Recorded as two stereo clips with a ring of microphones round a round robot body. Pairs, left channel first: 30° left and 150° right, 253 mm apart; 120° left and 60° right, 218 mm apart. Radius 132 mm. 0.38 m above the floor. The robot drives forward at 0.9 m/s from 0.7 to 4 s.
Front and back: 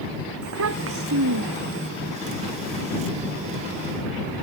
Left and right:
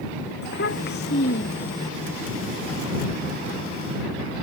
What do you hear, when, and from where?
0.4 s a child speaking: 175° left